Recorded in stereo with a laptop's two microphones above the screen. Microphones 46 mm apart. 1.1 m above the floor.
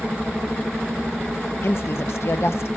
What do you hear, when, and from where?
1.6 s a woman speaking: 60° left (ahead or behind), 1.0 m